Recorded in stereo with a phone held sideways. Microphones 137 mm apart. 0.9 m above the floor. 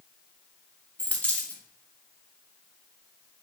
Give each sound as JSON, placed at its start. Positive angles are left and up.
{"t": 1.0, "sound": "a dropped coin", "side_deg": 10, "distance_m": 1.1}